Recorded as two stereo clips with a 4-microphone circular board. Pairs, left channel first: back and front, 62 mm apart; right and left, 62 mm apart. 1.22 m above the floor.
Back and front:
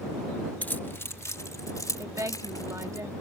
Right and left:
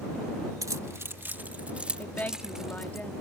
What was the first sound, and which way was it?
Keys jangling, 115° left.